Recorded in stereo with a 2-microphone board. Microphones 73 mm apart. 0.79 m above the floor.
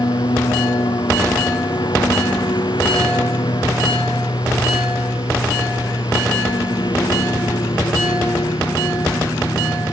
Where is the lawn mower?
75° left (ahead or behind).